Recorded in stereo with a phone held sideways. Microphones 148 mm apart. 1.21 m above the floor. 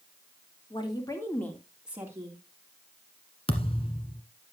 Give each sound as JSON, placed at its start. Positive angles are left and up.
{"t": 0.7, "sound": "a woman speaking", "side_deg": 35, "distance_m": 3.0}
{"t": 3.5, "sound": "a thud", "side_deg": 40, "distance_m": 1.5}